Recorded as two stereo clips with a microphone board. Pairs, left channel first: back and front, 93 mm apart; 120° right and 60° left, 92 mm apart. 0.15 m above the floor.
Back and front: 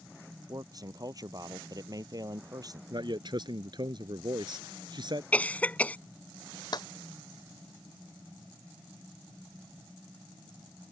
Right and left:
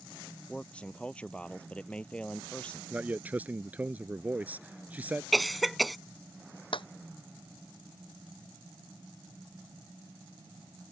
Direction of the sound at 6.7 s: 140° right.